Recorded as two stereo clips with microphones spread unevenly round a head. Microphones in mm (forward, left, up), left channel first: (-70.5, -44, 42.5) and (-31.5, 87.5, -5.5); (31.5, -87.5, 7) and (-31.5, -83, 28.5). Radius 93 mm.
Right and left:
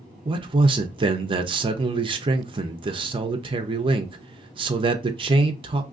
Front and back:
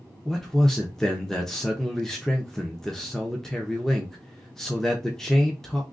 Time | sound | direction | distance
0.2 | a man speaking | 65° left | 0.5 m